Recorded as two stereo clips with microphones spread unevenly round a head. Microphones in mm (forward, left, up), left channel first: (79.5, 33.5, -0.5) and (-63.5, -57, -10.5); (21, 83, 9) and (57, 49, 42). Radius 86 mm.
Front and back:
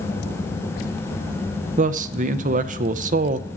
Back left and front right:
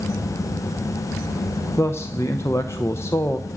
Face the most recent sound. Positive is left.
turn(degrees=-130)